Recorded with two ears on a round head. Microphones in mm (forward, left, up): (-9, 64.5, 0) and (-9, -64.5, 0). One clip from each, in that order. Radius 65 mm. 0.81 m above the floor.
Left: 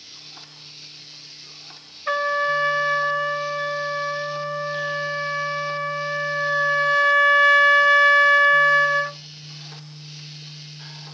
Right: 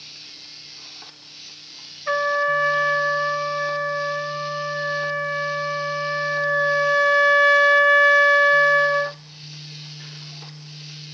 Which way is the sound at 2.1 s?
20° left (ahead or behind).